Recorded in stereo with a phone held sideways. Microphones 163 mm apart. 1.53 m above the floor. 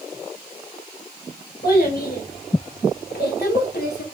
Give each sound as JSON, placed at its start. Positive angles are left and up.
{"t": 1.6, "sound": "a child speaking", "side_deg": 75, "distance_m": 3.5}